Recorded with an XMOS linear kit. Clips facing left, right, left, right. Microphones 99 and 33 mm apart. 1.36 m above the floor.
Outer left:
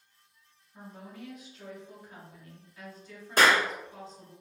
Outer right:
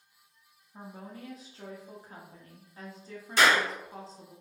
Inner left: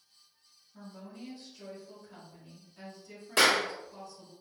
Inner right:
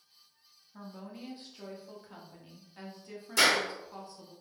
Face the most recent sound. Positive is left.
turn(degrees=45)  # may be behind; listen again after turning